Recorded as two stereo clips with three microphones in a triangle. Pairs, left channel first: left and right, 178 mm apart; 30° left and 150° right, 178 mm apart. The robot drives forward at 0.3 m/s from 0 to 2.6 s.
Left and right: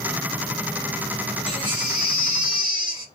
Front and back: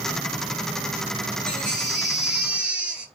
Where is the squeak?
I don't hear a squeak.